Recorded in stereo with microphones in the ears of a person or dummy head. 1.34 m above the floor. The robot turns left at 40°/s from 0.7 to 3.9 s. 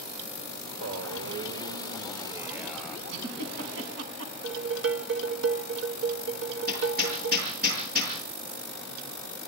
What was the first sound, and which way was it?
A man speaking, 100° right.